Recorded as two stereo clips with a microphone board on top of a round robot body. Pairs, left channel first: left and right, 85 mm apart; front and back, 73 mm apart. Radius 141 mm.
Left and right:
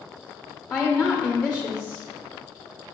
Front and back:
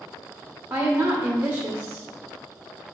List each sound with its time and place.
0.7 s a woman speaking: 150° left, 0.8 m